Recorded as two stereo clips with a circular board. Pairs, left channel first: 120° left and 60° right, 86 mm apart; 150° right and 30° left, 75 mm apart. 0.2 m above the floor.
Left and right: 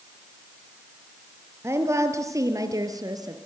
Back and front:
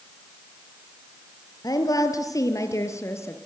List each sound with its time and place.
1.6 s a woman speaking: 115° right, 4 m; by 3.4 s 95° right, 3.5 m